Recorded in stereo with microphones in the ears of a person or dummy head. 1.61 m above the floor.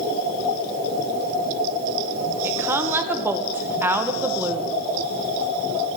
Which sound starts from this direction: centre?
A woman speaking, at 2.4 s.